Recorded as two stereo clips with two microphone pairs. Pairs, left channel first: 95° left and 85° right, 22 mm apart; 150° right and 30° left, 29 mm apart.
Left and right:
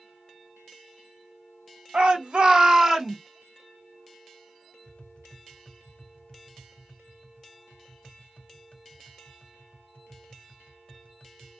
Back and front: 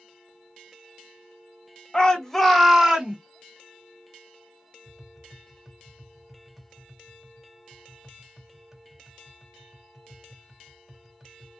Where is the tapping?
105° left, 0.6 m.